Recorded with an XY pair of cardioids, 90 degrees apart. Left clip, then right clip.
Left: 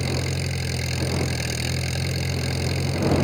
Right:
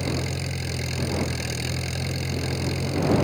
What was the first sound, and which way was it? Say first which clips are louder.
An engine running: left 1 dB; 25° left.